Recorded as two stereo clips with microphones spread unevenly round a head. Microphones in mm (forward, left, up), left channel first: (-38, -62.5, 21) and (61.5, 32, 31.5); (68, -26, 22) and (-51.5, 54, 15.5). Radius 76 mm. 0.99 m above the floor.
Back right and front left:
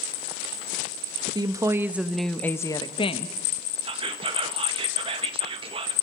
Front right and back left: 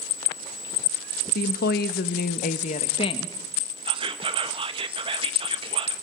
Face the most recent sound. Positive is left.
turn(degrees=100)